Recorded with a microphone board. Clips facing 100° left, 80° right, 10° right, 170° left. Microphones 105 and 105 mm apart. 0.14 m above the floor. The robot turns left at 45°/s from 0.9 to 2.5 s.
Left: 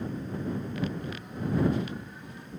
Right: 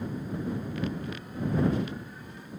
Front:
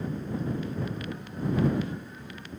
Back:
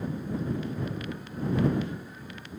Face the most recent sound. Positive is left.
No sound to turn to.